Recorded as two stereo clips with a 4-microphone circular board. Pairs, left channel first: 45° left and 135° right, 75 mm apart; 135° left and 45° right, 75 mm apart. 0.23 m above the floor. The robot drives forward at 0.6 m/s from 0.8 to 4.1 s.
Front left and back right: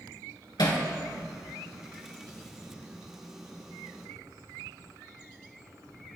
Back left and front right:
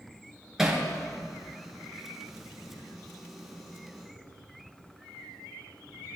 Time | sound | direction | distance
0.6 | hammering | 40° left | 2 m